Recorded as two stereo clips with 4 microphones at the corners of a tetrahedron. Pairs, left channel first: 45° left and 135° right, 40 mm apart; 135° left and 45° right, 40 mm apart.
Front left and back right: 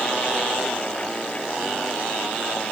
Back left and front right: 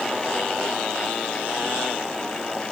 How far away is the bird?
I don't hear a bird.